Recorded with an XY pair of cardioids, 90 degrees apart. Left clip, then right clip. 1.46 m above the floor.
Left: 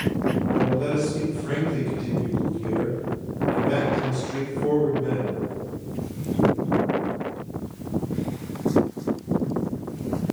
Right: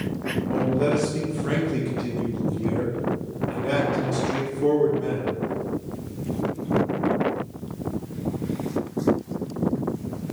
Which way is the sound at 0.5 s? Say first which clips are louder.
Right 4 dB; 35° right.